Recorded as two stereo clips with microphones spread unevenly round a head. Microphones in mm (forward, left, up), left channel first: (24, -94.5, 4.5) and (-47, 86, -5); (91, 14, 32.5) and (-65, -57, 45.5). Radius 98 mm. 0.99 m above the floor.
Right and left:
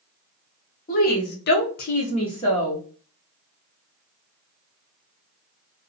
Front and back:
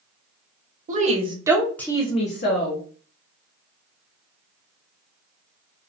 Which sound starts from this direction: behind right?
A woman speaking, at 0.9 s.